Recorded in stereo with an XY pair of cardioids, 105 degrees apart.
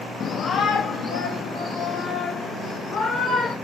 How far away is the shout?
About 0.7 m.